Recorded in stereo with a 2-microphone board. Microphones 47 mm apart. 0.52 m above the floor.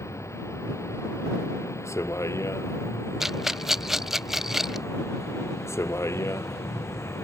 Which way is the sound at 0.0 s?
90° left.